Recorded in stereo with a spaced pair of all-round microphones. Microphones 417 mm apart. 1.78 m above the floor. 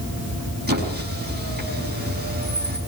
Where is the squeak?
25° right (ahead or behind), 6 m.